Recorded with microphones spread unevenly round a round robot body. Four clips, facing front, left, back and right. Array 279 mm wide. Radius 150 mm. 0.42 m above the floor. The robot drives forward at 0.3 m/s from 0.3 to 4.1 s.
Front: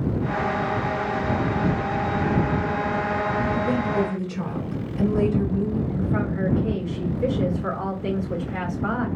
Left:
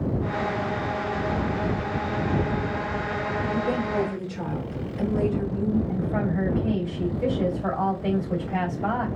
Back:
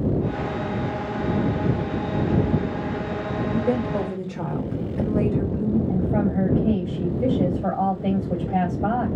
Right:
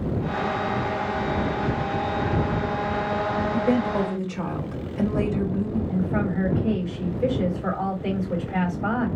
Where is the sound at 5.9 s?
175° left, 3 m.